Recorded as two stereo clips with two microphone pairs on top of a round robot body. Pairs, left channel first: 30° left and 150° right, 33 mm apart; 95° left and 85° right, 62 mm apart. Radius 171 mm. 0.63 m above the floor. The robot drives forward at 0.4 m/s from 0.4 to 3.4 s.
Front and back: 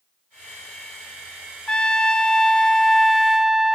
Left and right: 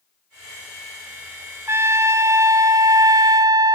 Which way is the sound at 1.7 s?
35° right.